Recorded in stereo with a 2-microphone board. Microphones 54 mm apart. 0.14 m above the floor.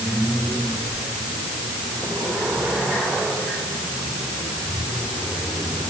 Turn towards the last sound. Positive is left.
No sound to turn to.